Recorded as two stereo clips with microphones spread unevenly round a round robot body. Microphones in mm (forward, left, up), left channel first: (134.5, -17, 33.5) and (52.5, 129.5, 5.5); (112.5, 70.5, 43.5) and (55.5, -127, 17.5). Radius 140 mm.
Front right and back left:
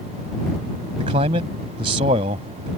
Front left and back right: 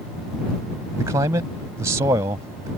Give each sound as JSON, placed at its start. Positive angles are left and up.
{"t": 1.0, "sound": "a man speaking", "azimuth_deg": 180}